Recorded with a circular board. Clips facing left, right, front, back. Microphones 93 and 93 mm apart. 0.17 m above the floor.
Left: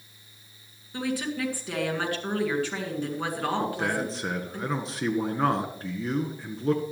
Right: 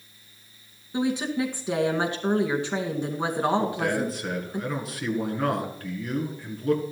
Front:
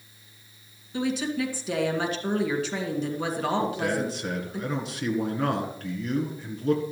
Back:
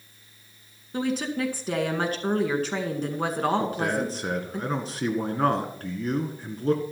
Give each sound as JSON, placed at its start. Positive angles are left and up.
{"t": 0.9, "sound": "a woman speaking", "azimuth_deg": -155, "distance_m": 2.0}
{"t": 3.6, "sound": "a man speaking", "azimuth_deg": 145, "distance_m": 1.8}